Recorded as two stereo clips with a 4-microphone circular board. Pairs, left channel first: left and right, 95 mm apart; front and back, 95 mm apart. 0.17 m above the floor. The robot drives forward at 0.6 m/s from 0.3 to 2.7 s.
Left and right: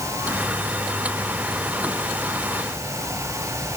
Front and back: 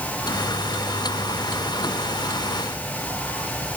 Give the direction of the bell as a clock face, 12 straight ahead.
I don't hear a bell.